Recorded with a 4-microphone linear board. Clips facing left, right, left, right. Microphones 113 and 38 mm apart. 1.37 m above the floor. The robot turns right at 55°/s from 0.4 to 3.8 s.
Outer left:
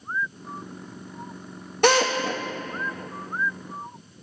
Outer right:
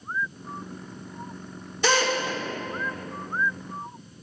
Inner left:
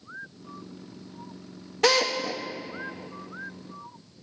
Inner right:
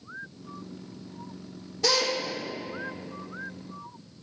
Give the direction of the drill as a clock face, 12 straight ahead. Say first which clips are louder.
Outer left 4 dB, inner left 4 dB; 10 o'clock.